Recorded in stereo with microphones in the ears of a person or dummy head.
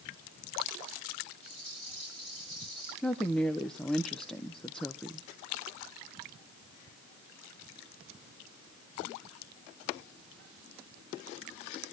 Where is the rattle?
Centre (ahead or behind), 8.5 m.